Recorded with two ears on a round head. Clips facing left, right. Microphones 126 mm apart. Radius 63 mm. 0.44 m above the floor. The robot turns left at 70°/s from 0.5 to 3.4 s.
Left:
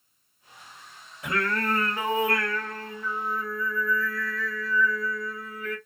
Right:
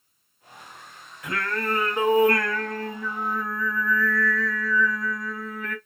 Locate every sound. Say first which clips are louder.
1.2 s singing: left 1 dB; 25° left, 2 m; by 5.8 s 125° right, 2 m